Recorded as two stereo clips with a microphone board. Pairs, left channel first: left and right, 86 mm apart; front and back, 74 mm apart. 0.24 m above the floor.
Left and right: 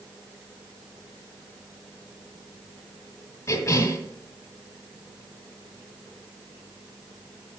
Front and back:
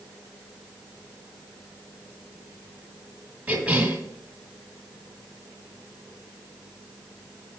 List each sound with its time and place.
3.5 s a cough: 115° left, 1.5 m